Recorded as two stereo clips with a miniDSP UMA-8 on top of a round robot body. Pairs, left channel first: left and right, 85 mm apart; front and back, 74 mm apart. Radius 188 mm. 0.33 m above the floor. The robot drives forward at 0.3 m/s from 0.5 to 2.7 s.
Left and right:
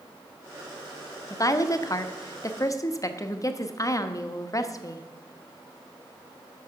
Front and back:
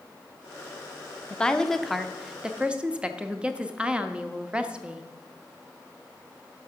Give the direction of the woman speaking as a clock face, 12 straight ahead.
10 o'clock.